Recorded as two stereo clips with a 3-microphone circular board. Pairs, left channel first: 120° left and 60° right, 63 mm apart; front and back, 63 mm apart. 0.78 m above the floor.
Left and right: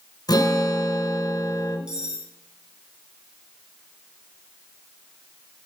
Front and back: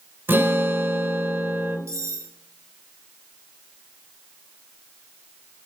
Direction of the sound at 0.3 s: 120° left.